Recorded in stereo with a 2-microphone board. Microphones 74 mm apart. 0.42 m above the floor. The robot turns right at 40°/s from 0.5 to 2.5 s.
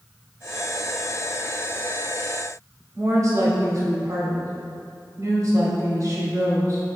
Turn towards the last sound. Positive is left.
turn(degrees=-45)  # may be behind; listen again after turning